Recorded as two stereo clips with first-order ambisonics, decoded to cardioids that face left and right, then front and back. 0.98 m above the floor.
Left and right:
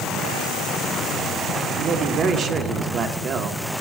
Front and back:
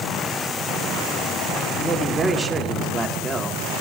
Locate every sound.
1.8 s a man speaking: 110° right, 0.9 m